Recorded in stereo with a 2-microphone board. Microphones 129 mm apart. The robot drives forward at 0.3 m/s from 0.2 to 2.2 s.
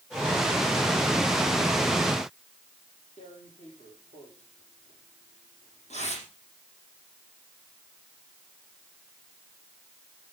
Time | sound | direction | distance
3.2 | tearing paper | 70° left (ahead or behind) | 6.5 m